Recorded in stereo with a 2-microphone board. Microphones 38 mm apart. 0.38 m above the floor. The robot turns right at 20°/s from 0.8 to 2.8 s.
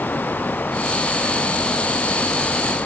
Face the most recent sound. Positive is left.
No sound to turn to.